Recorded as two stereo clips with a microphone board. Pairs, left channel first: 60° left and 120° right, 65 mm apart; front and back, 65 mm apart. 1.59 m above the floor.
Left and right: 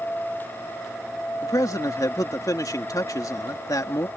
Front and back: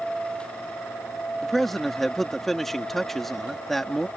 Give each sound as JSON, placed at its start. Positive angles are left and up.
{"t": 1.4, "sound": "a man speaking", "azimuth_deg": 85}